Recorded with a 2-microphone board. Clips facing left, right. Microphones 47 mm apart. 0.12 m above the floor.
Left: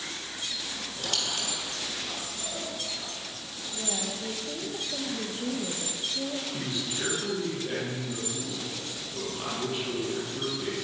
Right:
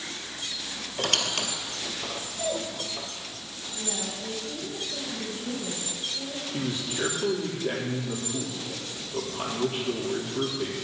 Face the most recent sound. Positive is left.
turn(degrees=-25)  # may be behind; listen again after turning